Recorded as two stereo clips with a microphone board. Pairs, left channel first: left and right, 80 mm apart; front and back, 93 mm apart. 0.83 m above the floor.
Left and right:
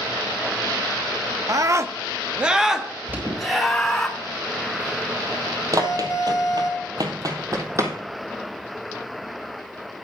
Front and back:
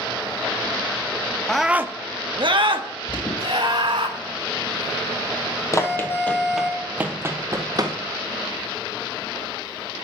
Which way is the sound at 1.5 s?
80° right.